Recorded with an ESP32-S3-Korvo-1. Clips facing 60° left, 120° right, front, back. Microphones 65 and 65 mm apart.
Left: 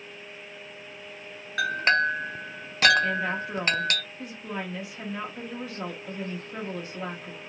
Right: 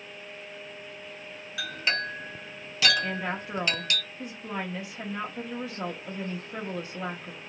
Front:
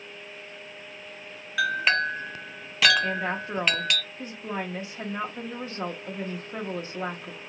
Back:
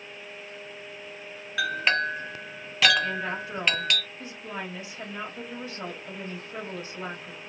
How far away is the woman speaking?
About 0.5 m.